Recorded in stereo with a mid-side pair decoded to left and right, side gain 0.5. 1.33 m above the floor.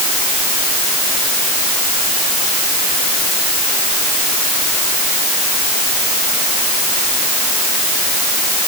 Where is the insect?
No insect in this recording.